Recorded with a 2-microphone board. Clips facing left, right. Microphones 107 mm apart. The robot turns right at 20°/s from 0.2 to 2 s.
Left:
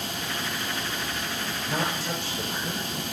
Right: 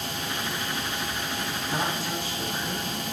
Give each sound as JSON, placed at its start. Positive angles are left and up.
{"t": 1.7, "sound": "a woman speaking", "side_deg": 80, "distance_m": 6.5}